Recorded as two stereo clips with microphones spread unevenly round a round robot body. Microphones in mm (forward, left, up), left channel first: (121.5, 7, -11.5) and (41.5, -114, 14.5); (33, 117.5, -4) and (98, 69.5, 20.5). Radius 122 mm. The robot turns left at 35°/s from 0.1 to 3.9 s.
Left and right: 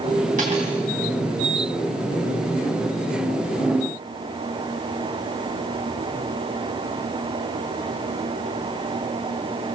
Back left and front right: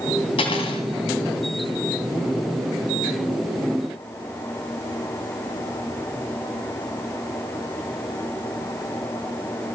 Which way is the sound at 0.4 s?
175° left.